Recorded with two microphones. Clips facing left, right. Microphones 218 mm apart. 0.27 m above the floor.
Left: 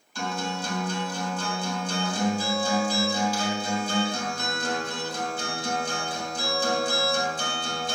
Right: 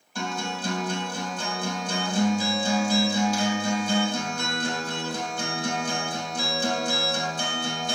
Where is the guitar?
55° right (ahead or behind), 3 m.